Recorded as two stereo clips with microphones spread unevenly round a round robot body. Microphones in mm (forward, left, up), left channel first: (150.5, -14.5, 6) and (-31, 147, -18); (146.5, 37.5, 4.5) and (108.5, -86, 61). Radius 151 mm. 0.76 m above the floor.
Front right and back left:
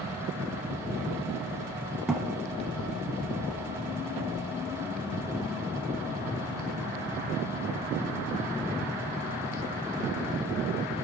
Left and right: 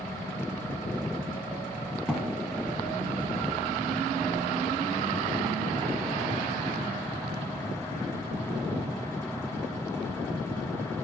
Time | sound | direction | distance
2.1 | a thud | 125° right | 0.7 m